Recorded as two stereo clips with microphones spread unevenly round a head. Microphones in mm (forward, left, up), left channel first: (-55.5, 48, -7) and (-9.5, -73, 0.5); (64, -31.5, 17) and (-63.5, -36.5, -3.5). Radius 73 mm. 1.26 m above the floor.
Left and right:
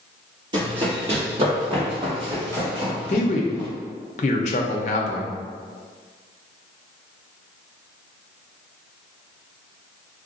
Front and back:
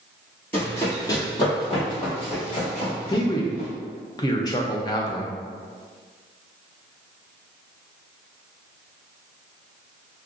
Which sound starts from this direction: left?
A man speaking, at 3.1 s.